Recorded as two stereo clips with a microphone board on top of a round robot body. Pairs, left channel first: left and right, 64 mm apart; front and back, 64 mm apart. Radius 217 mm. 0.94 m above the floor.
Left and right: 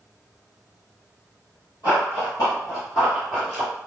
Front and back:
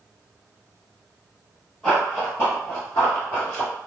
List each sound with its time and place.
1.8 s running footsteps: 85° left, 1.3 m; by 3.7 s 15° right, 1.1 m